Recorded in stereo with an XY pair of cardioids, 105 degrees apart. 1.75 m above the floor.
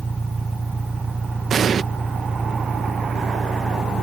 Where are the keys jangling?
No keys jangling in this recording.